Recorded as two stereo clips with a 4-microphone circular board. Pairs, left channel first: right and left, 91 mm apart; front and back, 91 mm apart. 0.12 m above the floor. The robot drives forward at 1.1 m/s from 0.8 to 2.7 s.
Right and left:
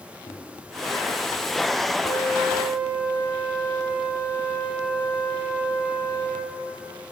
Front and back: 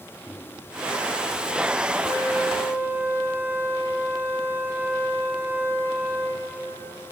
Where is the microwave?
90° right, 5 m.